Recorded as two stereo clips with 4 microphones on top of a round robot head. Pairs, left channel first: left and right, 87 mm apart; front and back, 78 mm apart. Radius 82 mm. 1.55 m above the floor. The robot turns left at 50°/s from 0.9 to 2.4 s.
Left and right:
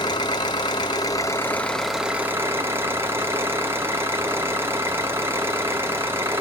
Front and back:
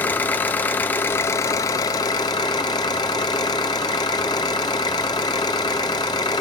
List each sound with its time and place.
0.0 s an engine running: 50° left, 0.9 m; by 6.4 s 25° right, 0.9 m